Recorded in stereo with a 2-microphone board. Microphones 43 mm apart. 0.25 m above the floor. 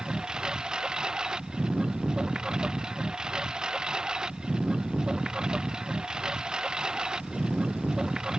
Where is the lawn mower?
20° right (ahead or behind).